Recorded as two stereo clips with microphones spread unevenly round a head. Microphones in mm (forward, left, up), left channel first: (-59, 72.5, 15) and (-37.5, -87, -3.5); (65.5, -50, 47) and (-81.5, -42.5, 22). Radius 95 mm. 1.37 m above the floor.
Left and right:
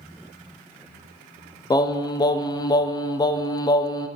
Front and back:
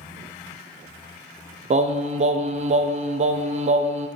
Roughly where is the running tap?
No running tap in this recording.